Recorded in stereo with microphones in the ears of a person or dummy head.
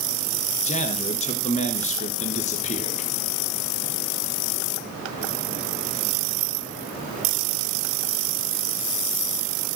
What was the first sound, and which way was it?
A man speaking, 40° left (ahead or behind).